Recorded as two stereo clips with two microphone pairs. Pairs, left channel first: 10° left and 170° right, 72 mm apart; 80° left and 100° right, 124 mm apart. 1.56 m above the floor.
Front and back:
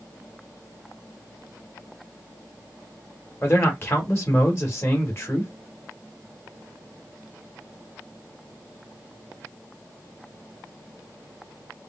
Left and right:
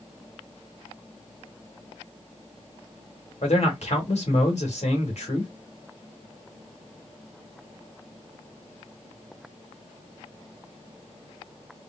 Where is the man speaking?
60° left, 1.7 m.